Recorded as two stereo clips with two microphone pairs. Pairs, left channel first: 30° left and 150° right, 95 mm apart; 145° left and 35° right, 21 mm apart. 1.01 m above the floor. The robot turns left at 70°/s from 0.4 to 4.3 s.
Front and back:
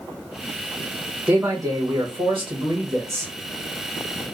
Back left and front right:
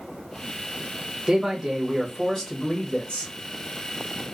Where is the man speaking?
75° right, 0.9 m; by 3.3 s 140° left, 0.9 m.